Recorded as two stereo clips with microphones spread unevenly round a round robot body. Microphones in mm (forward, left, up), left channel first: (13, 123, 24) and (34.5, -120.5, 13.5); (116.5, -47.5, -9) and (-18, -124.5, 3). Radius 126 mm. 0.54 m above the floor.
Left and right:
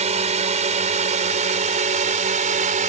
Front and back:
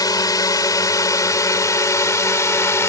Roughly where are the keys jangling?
I don't hear keys jangling.